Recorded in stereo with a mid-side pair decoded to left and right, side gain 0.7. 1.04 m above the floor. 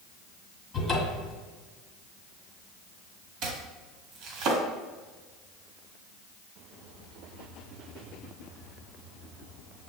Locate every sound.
0.7 s a cupboard door: 25° left, 1.7 m
3.4 s chopping: 50° right, 1.4 m